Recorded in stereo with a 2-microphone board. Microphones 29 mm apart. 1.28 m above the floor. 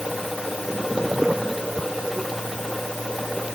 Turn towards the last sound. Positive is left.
No sound to turn to.